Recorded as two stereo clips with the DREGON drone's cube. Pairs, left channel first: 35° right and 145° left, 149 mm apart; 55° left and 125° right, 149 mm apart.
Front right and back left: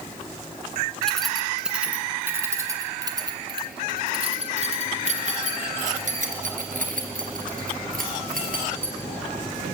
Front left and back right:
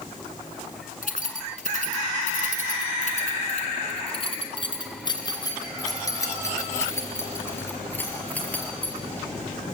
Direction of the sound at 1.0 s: 50° left.